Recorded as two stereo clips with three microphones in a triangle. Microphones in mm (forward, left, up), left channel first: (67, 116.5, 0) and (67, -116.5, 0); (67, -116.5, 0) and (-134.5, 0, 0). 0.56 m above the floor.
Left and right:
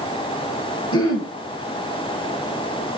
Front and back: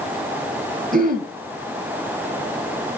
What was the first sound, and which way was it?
Throat clearing, 100° left.